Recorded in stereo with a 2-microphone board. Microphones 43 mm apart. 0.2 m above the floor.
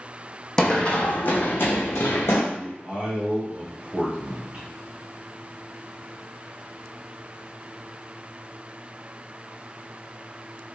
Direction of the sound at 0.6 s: 10° left (ahead or behind).